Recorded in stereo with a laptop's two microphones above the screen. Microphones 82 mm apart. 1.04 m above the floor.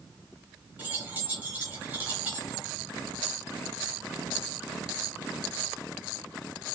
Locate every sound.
0.8 s keys jangling: 20° right (ahead or behind), 0.8 m